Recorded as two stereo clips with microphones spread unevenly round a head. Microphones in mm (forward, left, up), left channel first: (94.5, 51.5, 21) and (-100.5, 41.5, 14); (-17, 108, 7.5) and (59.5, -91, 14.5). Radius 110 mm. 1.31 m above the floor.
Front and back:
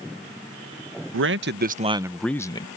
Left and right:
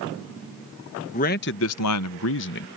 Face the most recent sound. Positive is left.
turn(degrees=70)